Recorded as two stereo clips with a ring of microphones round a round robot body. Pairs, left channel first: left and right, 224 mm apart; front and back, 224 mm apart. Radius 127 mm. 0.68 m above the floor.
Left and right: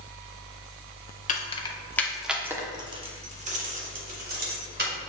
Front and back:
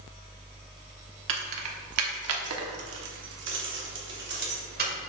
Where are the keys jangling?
145° left, 1.0 m; by 4.9 s 135° right, 2 m.